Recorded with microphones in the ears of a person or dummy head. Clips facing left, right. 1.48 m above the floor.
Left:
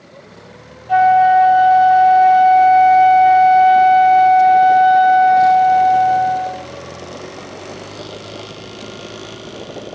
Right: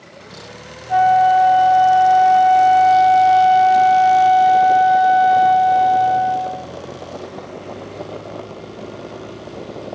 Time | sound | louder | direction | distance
0.9 | a flute | left 2 dB | 40° left (ahead or behind) | 2 m